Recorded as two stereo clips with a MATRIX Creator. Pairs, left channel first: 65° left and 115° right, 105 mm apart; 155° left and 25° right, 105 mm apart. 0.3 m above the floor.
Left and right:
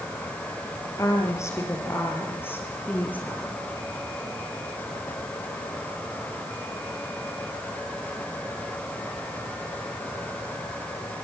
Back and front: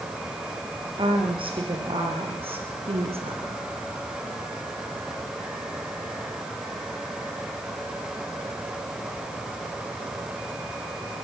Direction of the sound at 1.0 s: 10° left.